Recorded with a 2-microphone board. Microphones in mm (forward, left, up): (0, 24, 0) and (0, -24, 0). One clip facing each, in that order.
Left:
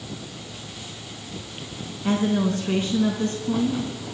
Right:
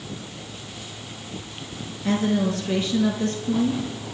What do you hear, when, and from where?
2.0 s a woman speaking: 35° left (ahead or behind), 3.5 m